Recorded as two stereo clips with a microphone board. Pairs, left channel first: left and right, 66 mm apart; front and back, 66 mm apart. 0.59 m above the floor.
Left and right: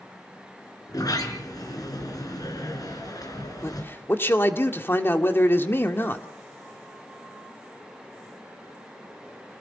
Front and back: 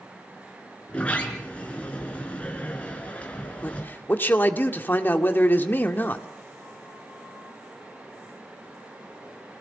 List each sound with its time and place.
0.9 s a sliding door: 70° left, 3.5 m
3.6 s a man speaking: 50° left, 1.7 m